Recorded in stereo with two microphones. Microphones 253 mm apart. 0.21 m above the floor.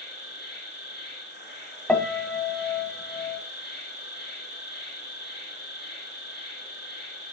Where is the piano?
5° left (ahead or behind), 0.6 m.